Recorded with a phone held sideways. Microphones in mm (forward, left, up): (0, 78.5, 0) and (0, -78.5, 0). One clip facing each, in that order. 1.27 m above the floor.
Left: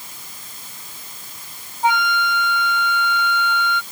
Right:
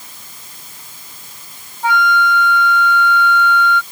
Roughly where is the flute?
Left.